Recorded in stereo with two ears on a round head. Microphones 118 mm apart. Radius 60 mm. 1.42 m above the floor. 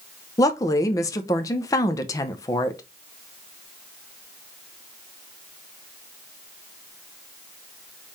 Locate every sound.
0.4 s a woman speaking: 25° left (ahead or behind), 0.6 m